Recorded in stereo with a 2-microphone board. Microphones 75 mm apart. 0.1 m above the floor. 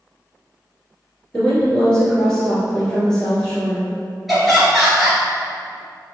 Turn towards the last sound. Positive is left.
turn(degrees=0)  # may be behind; listen again after turning